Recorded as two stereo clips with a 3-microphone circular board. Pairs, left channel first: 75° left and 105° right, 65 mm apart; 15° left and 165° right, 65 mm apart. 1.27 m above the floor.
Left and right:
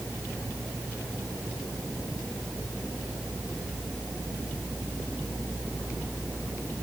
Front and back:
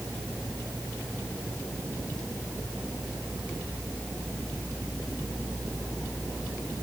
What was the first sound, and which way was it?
Only background noise.